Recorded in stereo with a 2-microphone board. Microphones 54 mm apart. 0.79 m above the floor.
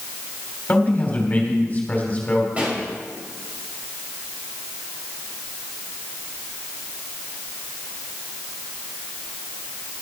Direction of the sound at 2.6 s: 25° right (ahead or behind).